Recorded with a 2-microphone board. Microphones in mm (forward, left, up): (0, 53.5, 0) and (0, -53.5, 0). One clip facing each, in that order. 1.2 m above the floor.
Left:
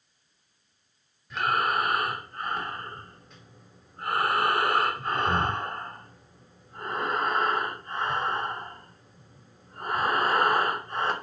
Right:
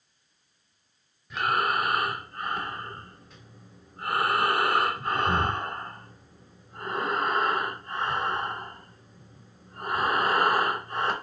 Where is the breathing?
Centre (ahead or behind), 1.1 m.